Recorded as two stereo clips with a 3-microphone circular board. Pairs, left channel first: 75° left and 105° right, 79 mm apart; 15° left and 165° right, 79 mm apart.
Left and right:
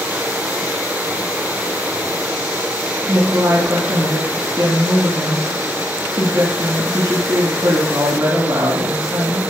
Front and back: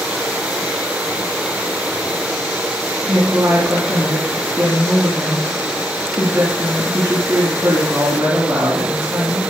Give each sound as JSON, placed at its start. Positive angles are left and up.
{"t": 3.1, "sound": "a woman speaking", "azimuth_deg": -95, "distance_m": 3.0}